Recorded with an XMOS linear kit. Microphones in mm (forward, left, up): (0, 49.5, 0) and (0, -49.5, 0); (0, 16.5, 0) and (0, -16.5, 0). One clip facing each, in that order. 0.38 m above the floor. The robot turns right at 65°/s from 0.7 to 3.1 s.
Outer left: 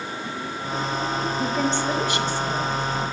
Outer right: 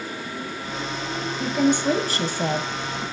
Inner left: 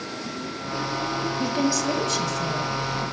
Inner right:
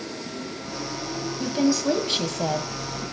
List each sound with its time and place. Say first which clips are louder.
1.4 s a woman speaking: outer right 6 dB, inner right 3 dB; 175° left, 1.9 m; by 2.7 s 100° right, 1.9 m